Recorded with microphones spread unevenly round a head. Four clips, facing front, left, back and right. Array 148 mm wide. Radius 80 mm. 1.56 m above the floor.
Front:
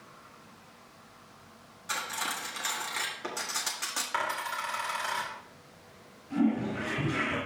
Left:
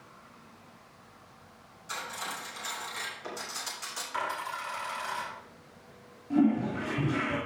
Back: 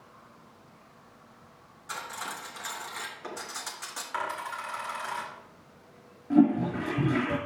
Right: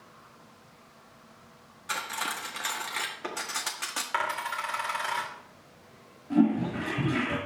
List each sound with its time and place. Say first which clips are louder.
1.9 s cutlery clinking: right 4 dB, front 2 dB; 65° right, 1.6 m
4.1 s a dropped coin: right 3 dB, front 1 dB; 70° right, 2 m
6.3 s a toilet flushing: right 1 dB, back 6 dB; 175° right, 3.5 m